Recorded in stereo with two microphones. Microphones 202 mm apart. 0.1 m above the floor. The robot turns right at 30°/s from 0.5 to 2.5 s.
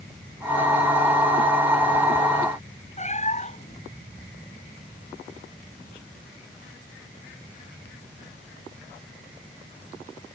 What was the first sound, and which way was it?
A cat meowing, 35° left (ahead or behind).